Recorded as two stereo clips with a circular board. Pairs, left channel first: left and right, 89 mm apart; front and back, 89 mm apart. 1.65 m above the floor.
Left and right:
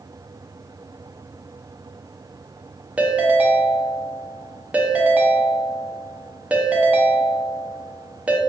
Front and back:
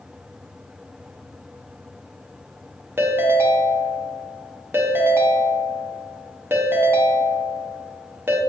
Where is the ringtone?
150° right, 0.5 m.